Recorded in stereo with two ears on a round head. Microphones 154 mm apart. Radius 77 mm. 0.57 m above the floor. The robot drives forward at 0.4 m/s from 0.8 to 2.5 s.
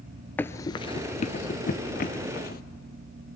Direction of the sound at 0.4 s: 10° left (ahead or behind).